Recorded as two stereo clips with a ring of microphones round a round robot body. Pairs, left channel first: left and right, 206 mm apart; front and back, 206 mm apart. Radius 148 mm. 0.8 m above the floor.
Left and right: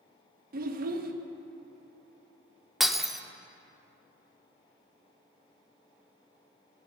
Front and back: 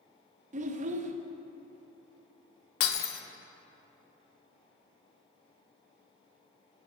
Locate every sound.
0.5 s a child speaking: 130° right, 0.5 m
2.8 s breaking glass: straight ahead, 0.7 m